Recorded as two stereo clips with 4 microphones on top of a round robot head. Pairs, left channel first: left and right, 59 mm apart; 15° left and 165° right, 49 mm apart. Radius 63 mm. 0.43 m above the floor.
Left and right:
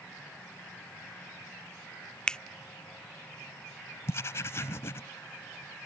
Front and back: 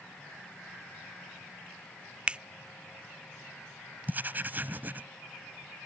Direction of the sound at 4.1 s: 140° left.